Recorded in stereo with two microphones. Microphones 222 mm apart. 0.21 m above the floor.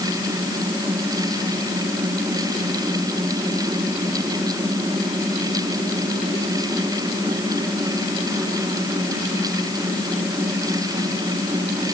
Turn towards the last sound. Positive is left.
No sound to turn to.